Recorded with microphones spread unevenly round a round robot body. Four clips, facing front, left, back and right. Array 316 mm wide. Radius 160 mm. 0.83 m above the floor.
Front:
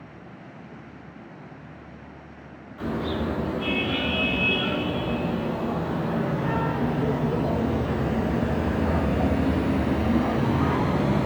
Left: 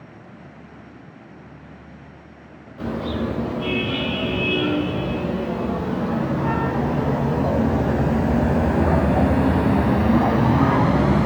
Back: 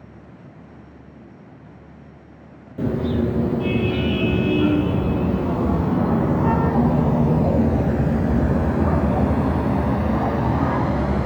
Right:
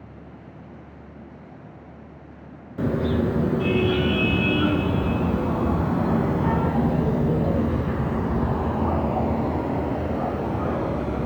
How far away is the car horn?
About 4 m.